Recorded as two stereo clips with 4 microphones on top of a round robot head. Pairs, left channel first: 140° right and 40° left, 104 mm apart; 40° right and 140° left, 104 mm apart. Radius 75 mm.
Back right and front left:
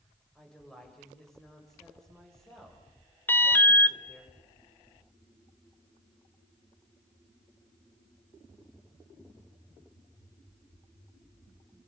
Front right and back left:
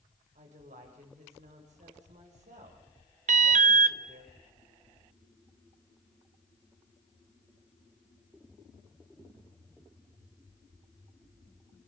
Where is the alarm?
150° left, 0.6 m.